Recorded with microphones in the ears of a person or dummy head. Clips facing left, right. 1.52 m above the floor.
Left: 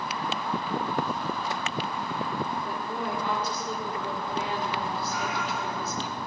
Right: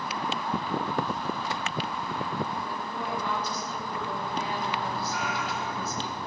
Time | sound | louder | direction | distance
2.6 | a woman speaking | left 2 dB | 35° left (ahead or behind) | 4 m
5.1 | a cat meowing | left 1 dB | centre (ahead or behind) | 2.5 m